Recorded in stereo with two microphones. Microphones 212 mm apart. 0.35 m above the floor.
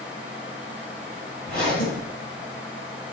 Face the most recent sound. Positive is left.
turn(degrees=40)  # may be behind; listen again after turning